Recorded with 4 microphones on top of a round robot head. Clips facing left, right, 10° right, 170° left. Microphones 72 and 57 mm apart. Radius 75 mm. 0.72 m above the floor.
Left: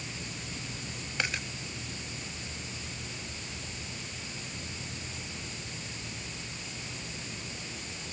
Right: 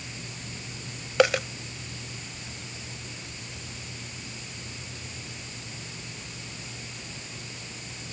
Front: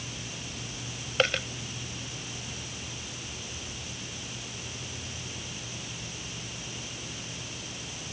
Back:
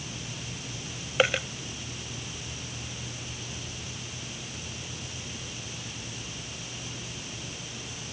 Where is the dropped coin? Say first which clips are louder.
Right 14 dB, back 2 dB; 105° right.